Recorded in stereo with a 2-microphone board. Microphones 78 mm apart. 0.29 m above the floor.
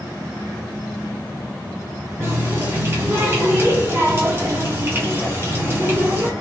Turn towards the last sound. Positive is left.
turn(degrees=-30)  # may be behind; listen again after turning